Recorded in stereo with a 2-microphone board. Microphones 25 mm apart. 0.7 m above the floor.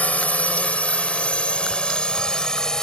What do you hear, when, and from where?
0.0 s a drone: 70° left (ahead or behind); by 2.8 s 30° left (ahead or behind)